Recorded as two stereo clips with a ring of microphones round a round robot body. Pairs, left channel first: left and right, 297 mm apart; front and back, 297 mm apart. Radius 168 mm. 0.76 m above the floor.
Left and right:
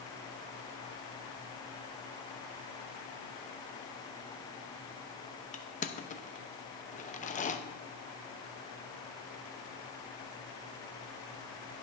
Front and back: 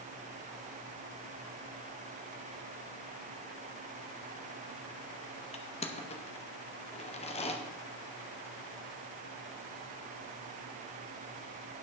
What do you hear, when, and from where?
5.5 s crushing: 50° left, 0.9 m